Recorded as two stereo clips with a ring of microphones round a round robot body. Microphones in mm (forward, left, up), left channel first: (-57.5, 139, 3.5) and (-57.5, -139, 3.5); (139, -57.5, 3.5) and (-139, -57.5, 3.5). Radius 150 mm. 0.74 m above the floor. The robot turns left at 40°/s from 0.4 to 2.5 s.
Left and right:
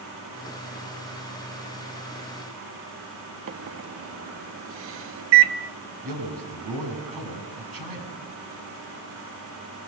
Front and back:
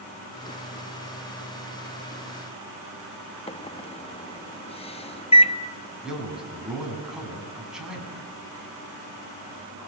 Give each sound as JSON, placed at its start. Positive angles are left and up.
{"t": 3.5, "sound": "a microwave", "azimuth_deg": -65, "distance_m": 1.2}
{"t": 6.0, "sound": "a man speaking", "azimuth_deg": -90, "distance_m": 8.0}